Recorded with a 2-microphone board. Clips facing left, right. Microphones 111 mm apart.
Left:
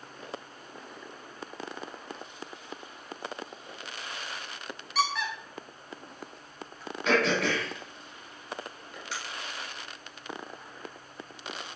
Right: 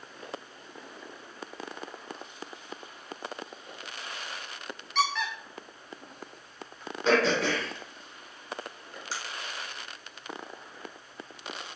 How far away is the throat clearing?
About 1.1 m.